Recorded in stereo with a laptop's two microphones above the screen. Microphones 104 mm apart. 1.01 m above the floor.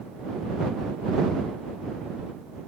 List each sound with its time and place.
Only background noise.